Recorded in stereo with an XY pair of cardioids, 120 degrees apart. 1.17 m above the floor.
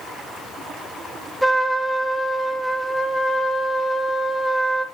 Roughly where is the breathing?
No breathing in this recording.